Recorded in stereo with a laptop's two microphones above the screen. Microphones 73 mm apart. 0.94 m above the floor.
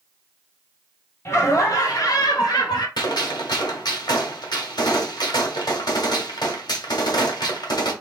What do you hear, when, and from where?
1.2 s laughter: 40° left (ahead or behind), 1.2 m; by 2.9 s 70° left (ahead or behind), 1.6 m
3.0 s a gunshot: 70° left (ahead or behind), 1.8 m